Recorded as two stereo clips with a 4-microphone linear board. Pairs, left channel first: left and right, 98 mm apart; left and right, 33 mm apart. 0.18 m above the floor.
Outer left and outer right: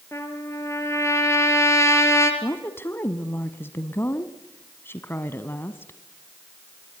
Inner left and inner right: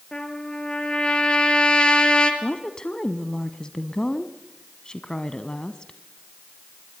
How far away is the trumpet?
About 3 m.